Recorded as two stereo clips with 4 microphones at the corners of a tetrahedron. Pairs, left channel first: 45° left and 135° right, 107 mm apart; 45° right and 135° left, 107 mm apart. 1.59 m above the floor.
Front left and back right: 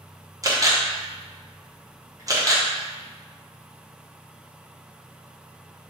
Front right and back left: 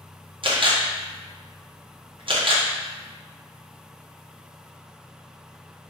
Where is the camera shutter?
170° left, 0.9 m.